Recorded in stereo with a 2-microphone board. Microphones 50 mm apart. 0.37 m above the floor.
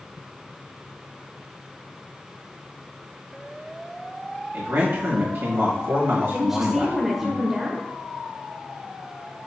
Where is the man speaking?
55° right (ahead or behind), 1.8 m.